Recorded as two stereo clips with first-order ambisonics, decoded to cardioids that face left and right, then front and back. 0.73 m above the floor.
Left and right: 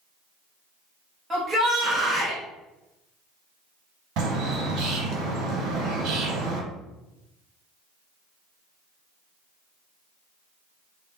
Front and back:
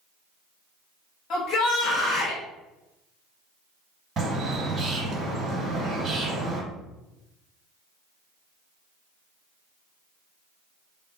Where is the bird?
120° right, 1.3 m.